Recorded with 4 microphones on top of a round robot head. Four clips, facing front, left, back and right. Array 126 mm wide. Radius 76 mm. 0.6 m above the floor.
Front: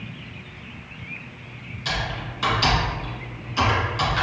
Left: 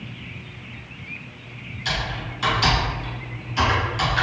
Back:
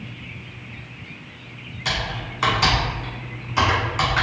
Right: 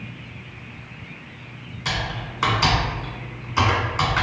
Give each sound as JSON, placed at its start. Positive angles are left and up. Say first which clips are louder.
{"t": 1.9, "sound": "typing on a keyboard", "louder": "even, back 1 dB", "azimuth_deg": -135, "distance_m": 1.2}